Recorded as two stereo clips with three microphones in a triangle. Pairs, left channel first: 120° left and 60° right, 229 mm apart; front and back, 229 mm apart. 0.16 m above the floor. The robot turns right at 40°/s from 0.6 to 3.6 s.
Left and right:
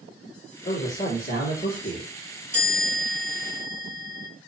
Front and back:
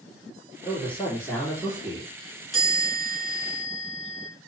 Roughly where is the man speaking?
Ahead left.